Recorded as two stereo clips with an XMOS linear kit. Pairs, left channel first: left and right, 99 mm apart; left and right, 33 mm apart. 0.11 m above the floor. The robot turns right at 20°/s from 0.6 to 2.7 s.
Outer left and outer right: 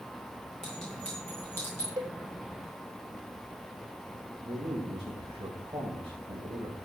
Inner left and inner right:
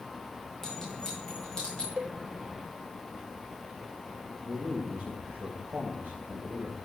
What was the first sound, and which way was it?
A clink, 5° left (ahead or behind).